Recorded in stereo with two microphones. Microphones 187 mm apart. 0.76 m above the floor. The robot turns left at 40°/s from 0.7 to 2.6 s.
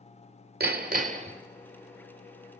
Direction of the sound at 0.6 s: 55° right (ahead or behind).